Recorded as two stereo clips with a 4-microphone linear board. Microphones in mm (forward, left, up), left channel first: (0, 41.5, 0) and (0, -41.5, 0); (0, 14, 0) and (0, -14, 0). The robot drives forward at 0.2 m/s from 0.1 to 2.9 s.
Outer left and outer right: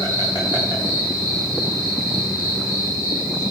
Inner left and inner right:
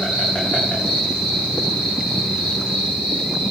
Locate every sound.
0.0 s an insect: 65° left (ahead or behind), 8 m; by 3.5 s 70° left (ahead or behind), 7.5 m